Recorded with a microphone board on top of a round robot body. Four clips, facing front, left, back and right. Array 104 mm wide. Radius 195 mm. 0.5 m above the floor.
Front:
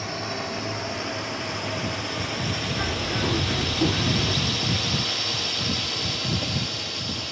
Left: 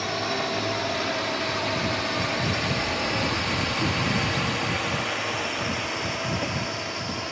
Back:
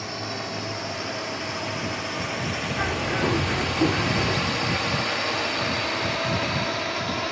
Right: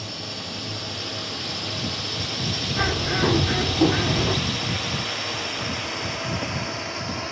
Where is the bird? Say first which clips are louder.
Right 3 dB, back 4 dB; 110° right.